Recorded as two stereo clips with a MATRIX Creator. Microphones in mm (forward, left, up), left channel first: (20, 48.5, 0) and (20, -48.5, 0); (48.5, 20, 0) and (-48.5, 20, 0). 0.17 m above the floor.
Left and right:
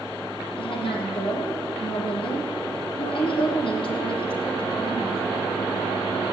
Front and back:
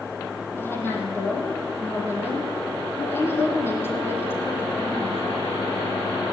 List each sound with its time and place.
0.6 s a woman speaking: 65° left, 6 m